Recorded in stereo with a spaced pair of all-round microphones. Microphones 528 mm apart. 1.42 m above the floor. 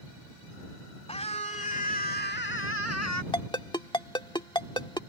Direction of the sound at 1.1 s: 10° left (ahead or behind).